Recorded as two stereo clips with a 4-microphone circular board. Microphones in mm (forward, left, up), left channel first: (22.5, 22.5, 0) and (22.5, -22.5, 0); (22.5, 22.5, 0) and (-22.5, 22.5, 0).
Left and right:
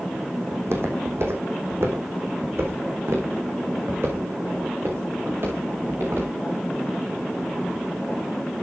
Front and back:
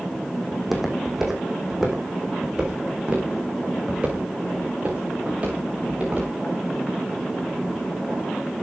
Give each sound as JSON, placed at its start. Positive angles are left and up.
{"t": 0.5, "sound": "footsteps", "azimuth_deg": -95, "distance_m": 3.5}